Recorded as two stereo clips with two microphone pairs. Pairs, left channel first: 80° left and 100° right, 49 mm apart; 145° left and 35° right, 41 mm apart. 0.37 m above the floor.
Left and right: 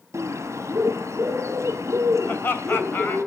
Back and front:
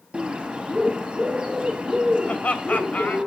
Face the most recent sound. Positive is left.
turn(degrees=105)